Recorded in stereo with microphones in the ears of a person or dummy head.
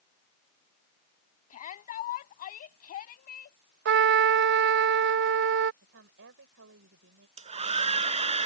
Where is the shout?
45° left (ahead or behind); by 3.6 s 50° left (ahead or behind).